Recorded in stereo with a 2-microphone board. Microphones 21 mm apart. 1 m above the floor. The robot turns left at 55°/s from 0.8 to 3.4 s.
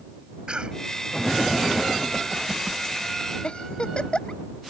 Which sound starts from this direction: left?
A giggle, at 3.4 s.